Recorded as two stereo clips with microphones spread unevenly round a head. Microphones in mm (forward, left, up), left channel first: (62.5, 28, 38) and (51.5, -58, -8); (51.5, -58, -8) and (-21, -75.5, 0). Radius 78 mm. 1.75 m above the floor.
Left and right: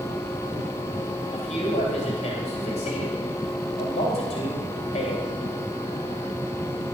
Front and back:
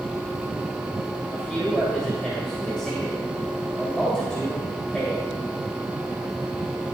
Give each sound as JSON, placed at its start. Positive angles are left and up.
{"t": 1.3, "sound": "a man speaking", "azimuth_deg": 100, "distance_m": 2.5}